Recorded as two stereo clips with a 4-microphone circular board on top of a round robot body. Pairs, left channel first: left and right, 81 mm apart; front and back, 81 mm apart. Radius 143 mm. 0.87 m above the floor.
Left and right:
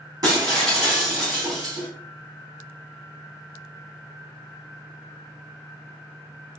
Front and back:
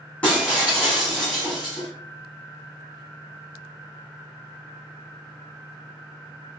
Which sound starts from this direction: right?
Breaking glass, at 0.2 s.